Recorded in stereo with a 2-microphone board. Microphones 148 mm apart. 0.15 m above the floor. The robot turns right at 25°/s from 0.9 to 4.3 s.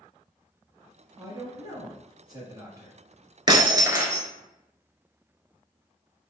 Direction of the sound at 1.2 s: 25° right (ahead or behind).